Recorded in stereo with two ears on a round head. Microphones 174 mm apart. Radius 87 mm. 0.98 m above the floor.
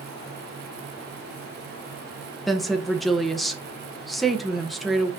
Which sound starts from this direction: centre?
A woman speaking, at 2.5 s.